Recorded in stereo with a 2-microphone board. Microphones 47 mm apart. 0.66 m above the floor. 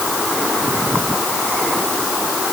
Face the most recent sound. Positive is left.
No sound to turn to.